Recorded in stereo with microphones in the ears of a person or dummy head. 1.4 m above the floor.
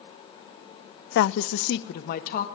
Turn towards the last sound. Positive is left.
turn(degrees=45)  # may be behind; listen again after turning